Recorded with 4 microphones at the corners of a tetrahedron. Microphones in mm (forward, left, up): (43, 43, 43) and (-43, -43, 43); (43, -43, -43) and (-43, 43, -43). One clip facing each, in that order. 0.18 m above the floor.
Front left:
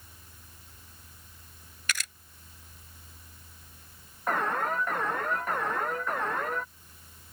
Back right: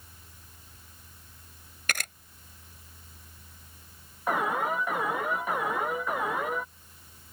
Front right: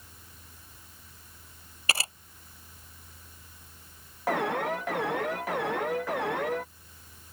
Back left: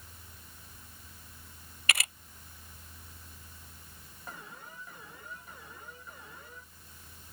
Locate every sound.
1.9 s a camera shutter: 100° right
4.3 s an alarm: 55° right